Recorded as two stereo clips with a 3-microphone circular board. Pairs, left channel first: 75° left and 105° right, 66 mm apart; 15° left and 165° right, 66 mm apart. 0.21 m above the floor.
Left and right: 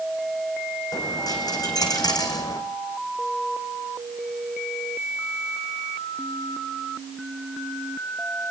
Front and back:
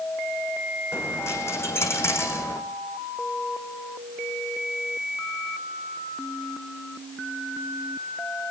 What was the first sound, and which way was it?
A dropped coin, 65° left.